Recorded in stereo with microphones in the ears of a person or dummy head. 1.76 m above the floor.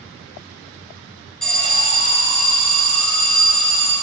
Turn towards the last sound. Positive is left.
turn(degrees=5)  # may be behind; listen again after turning